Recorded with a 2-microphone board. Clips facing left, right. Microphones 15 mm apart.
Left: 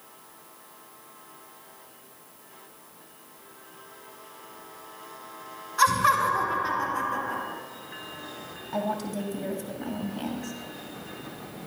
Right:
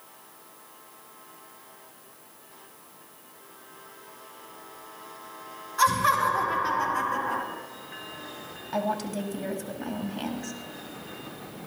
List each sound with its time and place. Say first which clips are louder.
5.8 s laughter: left 1 dB; 10° left (ahead or behind), 2.5 m; by 7.4 s 20° right (ahead or behind), 2.5 m
8.7 s a woman speaking: right 1 dB; 25° right (ahead or behind), 1.6 m